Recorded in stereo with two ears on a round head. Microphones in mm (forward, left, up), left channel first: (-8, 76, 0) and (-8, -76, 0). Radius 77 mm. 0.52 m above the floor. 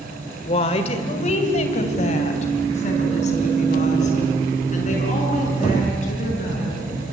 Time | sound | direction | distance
0.5 | a woman speaking | 35° left (ahead or behind) | 1.8 m